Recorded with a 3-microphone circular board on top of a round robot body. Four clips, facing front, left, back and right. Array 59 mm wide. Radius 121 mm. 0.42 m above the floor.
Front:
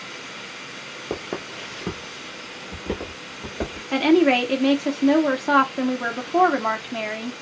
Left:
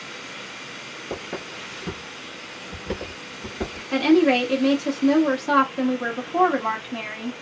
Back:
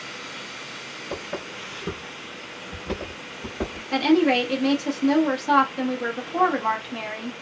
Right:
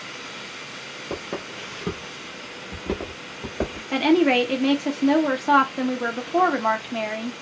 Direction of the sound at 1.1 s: 5° right.